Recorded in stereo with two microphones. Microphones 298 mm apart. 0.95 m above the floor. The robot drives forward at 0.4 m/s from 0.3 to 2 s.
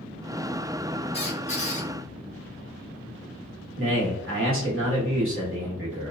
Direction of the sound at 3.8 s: 45° right (ahead or behind).